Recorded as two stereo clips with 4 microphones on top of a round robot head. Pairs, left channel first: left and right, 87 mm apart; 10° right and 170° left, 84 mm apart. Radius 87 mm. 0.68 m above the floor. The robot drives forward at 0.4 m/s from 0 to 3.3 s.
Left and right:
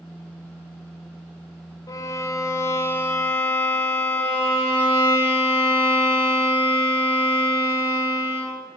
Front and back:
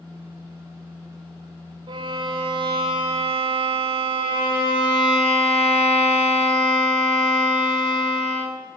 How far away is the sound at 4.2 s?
About 4 m.